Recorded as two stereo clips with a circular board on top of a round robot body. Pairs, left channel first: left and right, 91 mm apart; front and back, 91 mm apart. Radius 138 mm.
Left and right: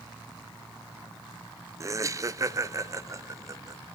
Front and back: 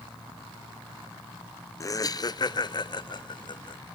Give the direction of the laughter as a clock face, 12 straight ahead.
2 o'clock.